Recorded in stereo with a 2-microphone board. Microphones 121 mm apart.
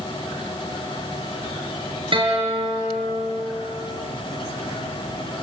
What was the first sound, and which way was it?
A guitar, 45° right (ahead or behind).